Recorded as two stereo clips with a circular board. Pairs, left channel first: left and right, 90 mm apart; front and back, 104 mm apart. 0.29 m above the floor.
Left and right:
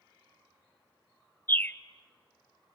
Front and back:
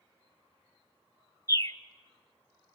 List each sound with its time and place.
1.5 s a bird: 35° left, 0.6 m